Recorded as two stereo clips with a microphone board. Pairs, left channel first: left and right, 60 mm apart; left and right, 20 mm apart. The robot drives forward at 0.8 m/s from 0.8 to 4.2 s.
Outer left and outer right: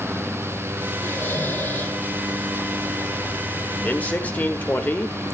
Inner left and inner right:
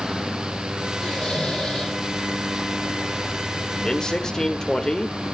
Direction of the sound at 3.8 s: 30° left (ahead or behind).